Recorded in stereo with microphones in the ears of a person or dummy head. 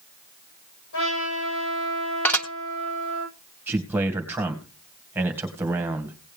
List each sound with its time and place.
0.9 s a trumpet: 75° left (ahead or behind), 9.5 m
2.2 s dishes clattering: 10° left (ahead or behind), 0.9 m
3.7 s a man speaking: 15° right (ahead or behind), 2 m